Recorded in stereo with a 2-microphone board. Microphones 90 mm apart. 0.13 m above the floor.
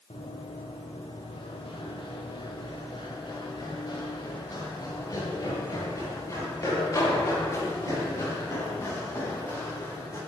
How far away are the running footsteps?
About 5.5 m.